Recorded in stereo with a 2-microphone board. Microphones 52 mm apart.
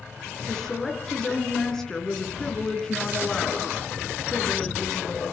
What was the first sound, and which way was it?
A woman speaking, 10° left (ahead or behind).